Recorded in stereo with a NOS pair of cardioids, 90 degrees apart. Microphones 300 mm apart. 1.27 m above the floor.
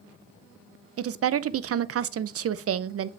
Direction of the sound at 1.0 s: 45° right.